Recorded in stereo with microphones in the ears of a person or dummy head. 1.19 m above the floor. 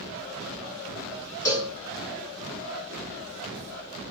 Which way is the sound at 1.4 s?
20° left (ahead or behind).